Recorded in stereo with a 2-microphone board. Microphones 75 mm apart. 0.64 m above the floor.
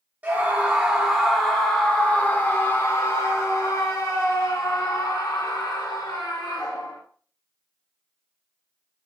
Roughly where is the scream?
Right.